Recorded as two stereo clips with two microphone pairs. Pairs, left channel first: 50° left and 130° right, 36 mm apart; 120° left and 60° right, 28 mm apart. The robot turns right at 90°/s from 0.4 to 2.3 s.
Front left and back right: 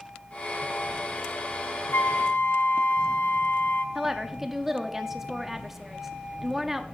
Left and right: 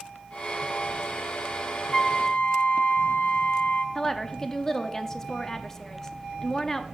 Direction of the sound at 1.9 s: 55° left.